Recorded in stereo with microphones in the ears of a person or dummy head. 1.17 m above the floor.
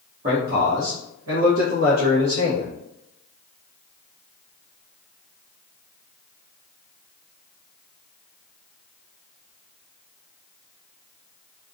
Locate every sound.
0.2 s a man speaking: 45° right (ahead or behind), 0.7 m; by 2.7 s 65° right (ahead or behind), 1.4 m